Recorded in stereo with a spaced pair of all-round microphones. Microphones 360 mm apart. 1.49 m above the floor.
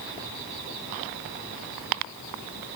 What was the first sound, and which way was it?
Only background noise.